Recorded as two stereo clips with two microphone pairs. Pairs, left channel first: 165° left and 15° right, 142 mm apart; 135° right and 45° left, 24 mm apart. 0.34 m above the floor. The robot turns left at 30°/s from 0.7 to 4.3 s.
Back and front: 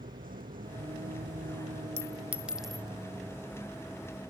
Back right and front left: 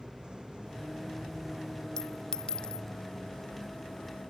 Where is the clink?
85° right; by 2.9 s 110° right.